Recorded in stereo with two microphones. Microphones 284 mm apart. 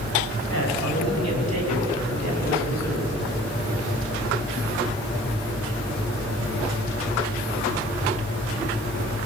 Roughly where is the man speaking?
Left.